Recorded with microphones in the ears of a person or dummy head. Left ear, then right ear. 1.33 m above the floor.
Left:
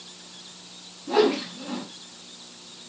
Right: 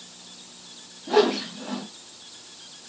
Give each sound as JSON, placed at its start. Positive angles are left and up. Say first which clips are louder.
{"t": 1.1, "sound": "a whoosh", "louder": "right 1 dB", "side_deg": -35, "distance_m": 0.6}